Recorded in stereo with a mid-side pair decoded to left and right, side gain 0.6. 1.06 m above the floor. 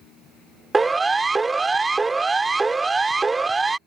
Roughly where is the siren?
Ahead.